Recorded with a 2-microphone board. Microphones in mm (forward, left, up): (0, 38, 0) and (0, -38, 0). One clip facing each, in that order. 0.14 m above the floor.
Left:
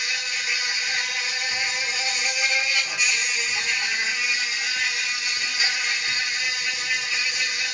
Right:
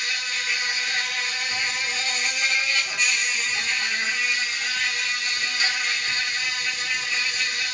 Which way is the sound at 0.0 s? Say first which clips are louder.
Even; 5° left (ahead or behind).